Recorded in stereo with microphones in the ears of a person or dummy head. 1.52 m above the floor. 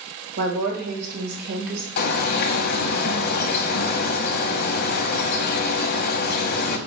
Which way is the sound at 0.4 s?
50° right (ahead or behind).